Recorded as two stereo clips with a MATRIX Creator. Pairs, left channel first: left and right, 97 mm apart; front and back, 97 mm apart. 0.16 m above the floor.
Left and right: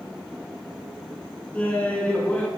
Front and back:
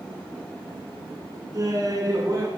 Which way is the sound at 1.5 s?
160° left.